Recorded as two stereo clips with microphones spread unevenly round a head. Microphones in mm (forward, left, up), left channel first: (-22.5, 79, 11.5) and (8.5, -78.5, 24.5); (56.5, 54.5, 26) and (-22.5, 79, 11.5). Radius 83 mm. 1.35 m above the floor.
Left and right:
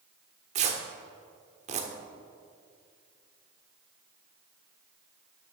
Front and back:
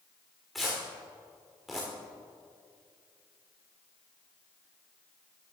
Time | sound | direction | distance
0.6 | tearing paper | 95° right | 1.2 m